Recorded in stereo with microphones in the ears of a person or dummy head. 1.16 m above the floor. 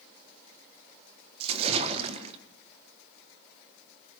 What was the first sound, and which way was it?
A splash, 35° right (ahead or behind).